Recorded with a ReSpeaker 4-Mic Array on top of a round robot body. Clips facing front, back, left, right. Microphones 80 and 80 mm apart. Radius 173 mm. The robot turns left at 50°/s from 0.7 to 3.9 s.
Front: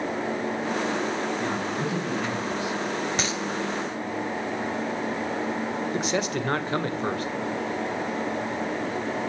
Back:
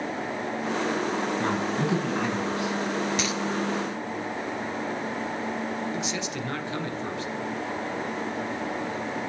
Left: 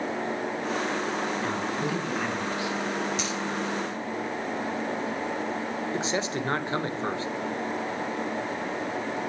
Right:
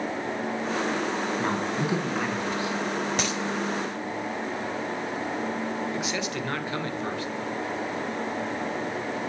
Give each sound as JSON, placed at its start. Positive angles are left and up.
{"t": 1.4, "sound": "a man speaking", "azimuth_deg": -140, "distance_m": 4.5}
{"t": 3.2, "sound": "a dropped coin", "azimuth_deg": -55, "distance_m": 0.7}
{"t": 5.9, "sound": "a man speaking", "azimuth_deg": 35, "distance_m": 2.0}